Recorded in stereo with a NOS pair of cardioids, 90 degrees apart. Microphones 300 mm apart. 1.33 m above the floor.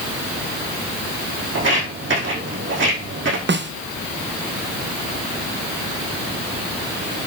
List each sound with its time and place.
1.6 s footsteps: 45° right, 5 m
3.5 s a snare drum: 40° right, 1.0 m